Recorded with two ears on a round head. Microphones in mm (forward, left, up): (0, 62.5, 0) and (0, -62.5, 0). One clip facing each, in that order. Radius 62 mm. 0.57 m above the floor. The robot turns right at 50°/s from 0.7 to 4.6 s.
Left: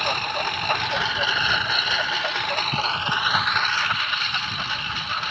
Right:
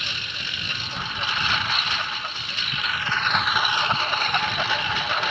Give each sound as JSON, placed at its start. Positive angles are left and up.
{"t": 0.0, "sound": "a lawn mower", "azimuth_deg": 45}